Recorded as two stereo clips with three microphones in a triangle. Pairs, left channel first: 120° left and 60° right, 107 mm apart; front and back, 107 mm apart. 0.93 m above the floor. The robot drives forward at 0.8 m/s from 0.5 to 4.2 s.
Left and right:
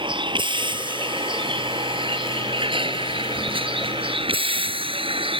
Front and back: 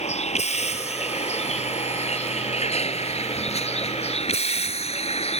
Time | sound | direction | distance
0.0 | a vehicle | 15° right | ?